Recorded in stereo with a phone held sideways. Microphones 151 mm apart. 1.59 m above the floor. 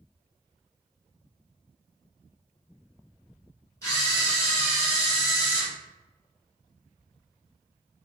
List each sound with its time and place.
3.8 s a camera shutter: 20° left (ahead or behind), 1.4 m